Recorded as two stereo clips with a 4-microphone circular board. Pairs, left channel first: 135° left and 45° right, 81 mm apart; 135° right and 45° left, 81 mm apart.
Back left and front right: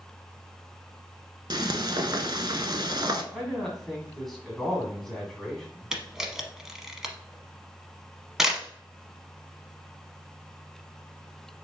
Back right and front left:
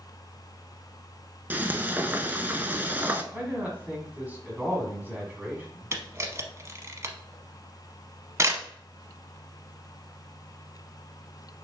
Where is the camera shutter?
35° left, 0.8 m.